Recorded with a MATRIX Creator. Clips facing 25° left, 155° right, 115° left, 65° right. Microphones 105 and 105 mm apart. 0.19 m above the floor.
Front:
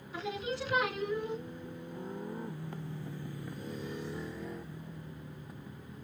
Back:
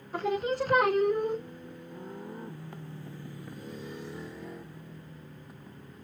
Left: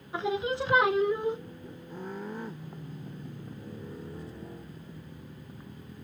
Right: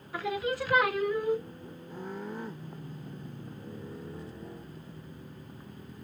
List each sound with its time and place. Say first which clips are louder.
0.1 s singing: back 8 dB, left 2 dB; 175° left, 0.7 m